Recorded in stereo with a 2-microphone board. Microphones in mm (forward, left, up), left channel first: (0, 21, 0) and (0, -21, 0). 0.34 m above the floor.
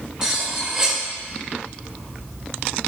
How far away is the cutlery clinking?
About 0.6 m.